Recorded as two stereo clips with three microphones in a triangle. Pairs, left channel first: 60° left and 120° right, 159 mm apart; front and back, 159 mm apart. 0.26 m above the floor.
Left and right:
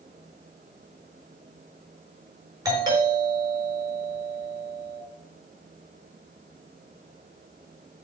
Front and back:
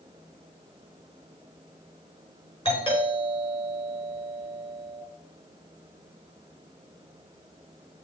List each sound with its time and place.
2.6 s a doorbell: 55° right, 5 m